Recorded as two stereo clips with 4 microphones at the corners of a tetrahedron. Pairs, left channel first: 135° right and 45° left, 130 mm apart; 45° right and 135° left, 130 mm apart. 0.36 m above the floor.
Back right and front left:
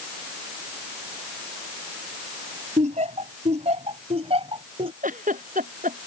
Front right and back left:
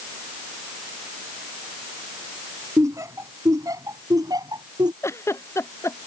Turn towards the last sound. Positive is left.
turn(degrees=25)